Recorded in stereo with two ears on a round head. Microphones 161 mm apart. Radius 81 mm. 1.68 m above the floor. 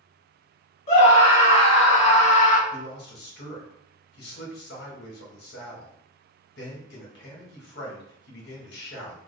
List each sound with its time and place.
0.9 s a scream: 40° left (ahead or behind), 2.5 m; by 2.6 s 45° left (ahead or behind), 0.9 m
2.7 s a man speaking: 65° left (ahead or behind), 1.8 m